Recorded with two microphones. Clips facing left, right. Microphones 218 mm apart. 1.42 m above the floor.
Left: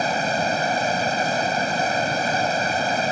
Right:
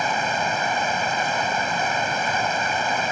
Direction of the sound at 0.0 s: 40° left (ahead or behind).